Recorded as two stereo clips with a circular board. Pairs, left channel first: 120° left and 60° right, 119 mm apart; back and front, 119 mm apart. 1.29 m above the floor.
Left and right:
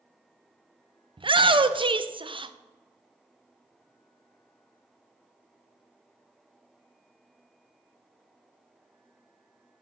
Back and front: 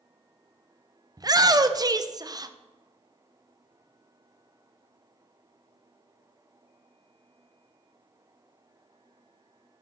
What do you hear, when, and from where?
1.2 s a shout: 45° right, 0.5 m